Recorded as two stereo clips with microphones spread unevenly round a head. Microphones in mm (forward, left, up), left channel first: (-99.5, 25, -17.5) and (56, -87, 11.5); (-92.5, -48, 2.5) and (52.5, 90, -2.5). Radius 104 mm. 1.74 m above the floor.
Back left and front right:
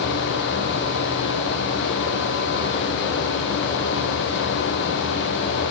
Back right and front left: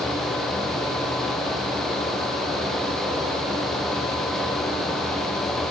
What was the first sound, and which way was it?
Only background noise.